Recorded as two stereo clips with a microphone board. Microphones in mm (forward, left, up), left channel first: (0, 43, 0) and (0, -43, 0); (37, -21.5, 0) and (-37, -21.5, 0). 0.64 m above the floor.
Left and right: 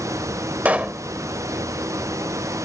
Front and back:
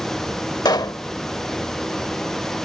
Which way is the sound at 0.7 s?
20° right.